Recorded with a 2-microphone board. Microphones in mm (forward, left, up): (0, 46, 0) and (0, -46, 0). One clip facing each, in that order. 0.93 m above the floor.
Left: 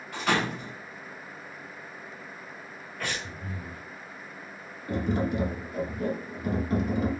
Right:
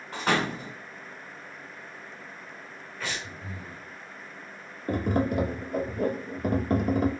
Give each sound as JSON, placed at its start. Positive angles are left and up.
{"t": 0.1, "sound": "a door slam", "side_deg": -35, "distance_m": 1.5}
{"t": 3.0, "sound": "breathing", "side_deg": 65, "distance_m": 1.9}
{"t": 4.9, "sound": "tapping", "side_deg": -55, "distance_m": 0.6}